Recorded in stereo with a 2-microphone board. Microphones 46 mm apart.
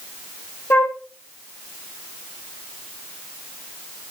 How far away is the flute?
About 3 m.